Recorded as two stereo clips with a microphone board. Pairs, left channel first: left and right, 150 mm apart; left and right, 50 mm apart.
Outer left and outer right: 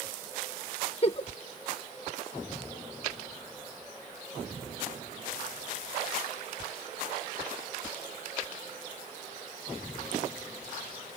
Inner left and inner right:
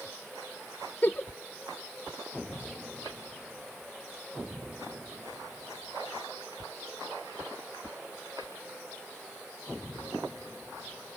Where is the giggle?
40° left (ahead or behind), 0.6 m.